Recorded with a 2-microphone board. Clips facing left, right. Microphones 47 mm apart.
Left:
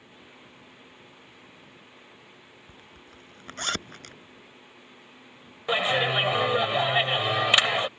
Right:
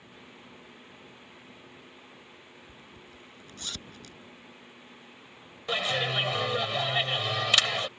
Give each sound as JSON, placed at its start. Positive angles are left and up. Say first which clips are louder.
{"t": 2.7, "sound": "a zipper", "louder": "even", "side_deg": 55}
{"t": 5.7, "sound": "a clap", "louder": "left 5 dB", "side_deg": 25}